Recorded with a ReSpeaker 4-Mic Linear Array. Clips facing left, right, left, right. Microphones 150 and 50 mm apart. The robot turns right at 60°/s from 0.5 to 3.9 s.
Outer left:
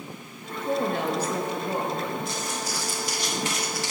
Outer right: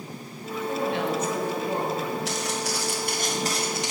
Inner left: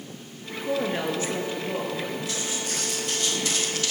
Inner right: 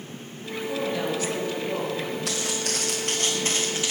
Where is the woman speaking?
105° left, 3 m; by 2.2 s 165° right, 3 m.